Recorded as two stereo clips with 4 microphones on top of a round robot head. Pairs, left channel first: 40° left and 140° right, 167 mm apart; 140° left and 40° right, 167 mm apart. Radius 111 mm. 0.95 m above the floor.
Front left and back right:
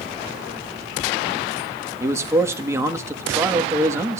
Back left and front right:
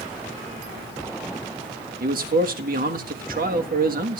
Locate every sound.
2.0 s a man speaking: 70° right, 1.7 m